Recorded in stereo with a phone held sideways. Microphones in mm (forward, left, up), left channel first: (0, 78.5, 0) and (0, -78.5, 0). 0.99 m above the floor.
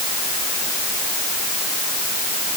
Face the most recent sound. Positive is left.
No sound to turn to.